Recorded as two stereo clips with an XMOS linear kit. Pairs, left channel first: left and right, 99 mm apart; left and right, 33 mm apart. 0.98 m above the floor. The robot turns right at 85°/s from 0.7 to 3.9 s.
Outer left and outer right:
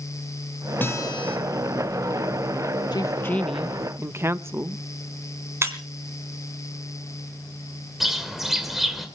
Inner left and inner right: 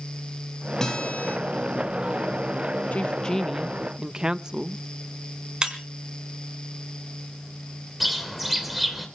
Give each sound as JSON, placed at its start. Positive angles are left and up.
{"t": 0.8, "sound": "a guitar", "azimuth_deg": 20, "distance_m": 4.0}
{"t": 2.9, "sound": "a woman speaking", "azimuth_deg": 125, "distance_m": 0.8}
{"t": 5.6, "sound": "breaking glass", "side_deg": -25, "distance_m": 3.0}
{"t": 8.0, "sound": "a bird", "side_deg": 0, "distance_m": 2.5}